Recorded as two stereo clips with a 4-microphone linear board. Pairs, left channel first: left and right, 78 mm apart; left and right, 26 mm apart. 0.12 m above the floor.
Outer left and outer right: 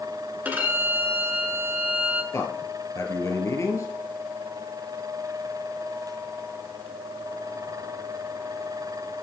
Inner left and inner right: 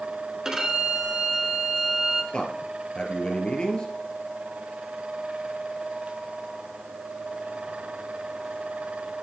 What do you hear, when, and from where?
0.5 s a violin: 20° right (ahead or behind), 1.4 m
2.3 s a man speaking: 40° left (ahead or behind), 1.9 m